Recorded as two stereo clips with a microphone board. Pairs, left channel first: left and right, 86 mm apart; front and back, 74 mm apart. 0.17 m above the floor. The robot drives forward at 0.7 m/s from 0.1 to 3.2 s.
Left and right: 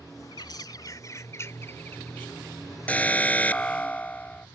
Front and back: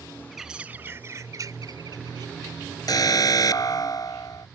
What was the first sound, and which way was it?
A bird, 90° left.